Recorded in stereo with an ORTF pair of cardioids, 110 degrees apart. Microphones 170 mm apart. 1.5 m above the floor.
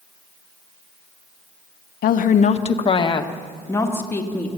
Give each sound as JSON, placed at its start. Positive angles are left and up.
{"t": 2.0, "sound": "a woman speaking", "azimuth_deg": 60, "distance_m": 1.4}